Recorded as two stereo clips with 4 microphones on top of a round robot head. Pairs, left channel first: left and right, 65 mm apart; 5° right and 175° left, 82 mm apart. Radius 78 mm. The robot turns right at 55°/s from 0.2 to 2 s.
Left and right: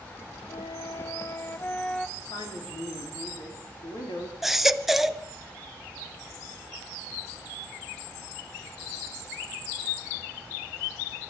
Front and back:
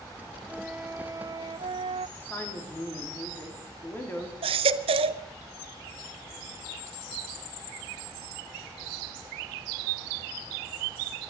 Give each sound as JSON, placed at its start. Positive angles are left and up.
{"t": 0.5, "sound": "a flute", "azimuth_deg": 85, "distance_m": 0.6}
{"t": 2.2, "sound": "a man speaking", "azimuth_deg": 60, "distance_m": 4.0}
{"t": 4.4, "sound": "a baby crying", "azimuth_deg": 180, "distance_m": 0.7}